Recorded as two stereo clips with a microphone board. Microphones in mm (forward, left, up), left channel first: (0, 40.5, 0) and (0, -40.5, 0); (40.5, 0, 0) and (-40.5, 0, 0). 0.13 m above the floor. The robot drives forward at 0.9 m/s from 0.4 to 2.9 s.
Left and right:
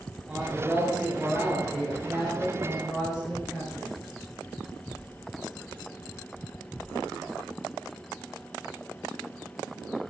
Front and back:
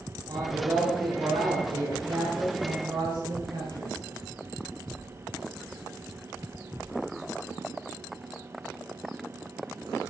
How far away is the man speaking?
About 2 m.